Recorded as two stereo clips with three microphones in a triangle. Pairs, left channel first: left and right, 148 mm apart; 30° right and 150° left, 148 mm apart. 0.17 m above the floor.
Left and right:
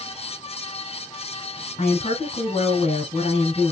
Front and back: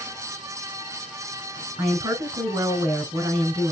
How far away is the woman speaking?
About 1.3 m.